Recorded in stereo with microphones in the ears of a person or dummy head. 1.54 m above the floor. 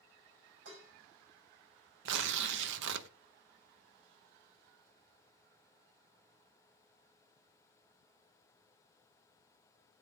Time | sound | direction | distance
0.7 | dishes clattering | 75° right (ahead or behind) | 5 m
2.0 | tearing paper | 65° right (ahead or behind) | 0.9 m